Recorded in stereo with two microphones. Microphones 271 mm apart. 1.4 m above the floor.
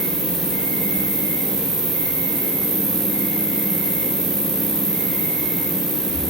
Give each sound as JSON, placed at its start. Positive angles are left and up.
{"t": 0.0, "sound": "an insect", "side_deg": -65, "distance_m": 6.5}